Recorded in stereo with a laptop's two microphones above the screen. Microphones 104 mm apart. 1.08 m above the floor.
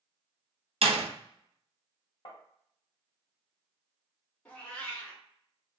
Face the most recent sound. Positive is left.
turn(degrees=15)  # may be behind; listen again after turning